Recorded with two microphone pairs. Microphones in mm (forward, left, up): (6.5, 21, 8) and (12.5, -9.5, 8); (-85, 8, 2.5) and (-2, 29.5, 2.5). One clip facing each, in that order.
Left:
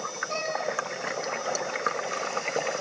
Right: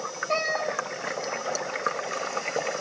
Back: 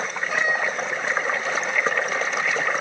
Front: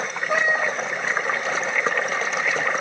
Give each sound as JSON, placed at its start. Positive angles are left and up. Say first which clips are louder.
{"t": 0.3, "sound": "a cat meowing", "louder": "right 5 dB, front 3 dB", "azimuth_deg": -30, "distance_m": 3.0}